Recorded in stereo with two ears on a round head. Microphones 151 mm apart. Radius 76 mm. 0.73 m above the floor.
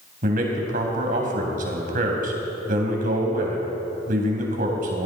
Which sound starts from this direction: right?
A man speaking, at 0.2 s.